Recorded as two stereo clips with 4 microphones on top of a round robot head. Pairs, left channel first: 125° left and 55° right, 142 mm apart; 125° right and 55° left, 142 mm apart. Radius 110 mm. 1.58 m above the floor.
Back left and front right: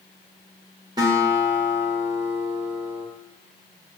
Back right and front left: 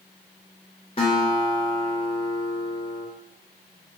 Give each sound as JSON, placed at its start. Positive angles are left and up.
{"t": 1.0, "sound": "a guitar", "azimuth_deg": -100, "distance_m": 0.7}